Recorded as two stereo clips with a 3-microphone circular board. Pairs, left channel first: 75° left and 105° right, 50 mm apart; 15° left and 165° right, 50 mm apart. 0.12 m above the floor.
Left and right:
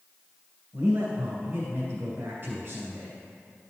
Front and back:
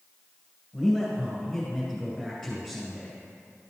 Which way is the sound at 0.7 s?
70° right.